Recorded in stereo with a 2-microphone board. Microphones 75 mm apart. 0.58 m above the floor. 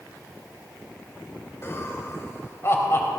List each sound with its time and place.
1.6 s laughter: 35° left (ahead or behind), 3 m